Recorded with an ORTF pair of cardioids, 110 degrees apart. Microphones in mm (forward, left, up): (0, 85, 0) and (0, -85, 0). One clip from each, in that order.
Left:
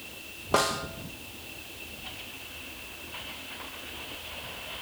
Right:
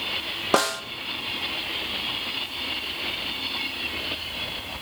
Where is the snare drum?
45° right, 0.9 m.